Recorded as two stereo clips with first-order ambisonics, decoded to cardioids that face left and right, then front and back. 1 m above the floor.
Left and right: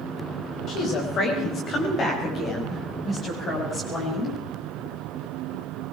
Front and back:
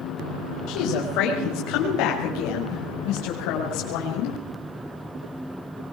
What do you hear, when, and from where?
0.7 s a woman speaking: 35° left, 4 m; by 4.4 s 20° left, 6 m